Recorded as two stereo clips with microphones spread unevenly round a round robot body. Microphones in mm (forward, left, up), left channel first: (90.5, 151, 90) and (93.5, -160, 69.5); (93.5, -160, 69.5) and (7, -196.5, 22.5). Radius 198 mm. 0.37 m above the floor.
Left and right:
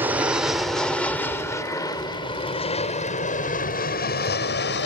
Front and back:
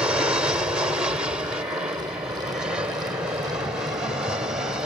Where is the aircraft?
165° right; by 4.9 s 145° left.